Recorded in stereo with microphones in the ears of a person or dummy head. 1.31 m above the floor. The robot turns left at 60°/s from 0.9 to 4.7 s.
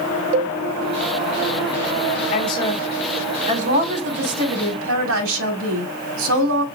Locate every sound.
0.3 s a cowbell: 35° right (ahead or behind), 1.0 m
2.3 s a woman speaking: 40° left, 1.5 m; by 6.7 s 100° right, 1.5 m